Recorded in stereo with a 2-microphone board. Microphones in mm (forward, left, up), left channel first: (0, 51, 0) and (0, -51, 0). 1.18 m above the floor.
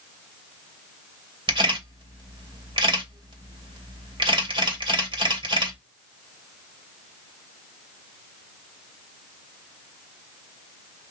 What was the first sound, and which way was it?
A camera shutter, 55° right (ahead or behind).